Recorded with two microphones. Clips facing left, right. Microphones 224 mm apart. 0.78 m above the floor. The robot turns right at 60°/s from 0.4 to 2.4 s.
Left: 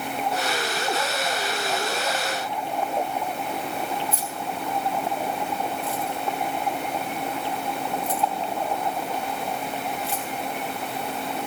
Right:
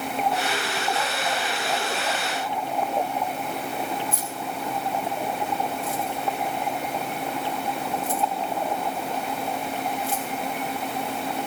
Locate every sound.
4.1 s keys jangling: 50° right (ahead or behind), 3 m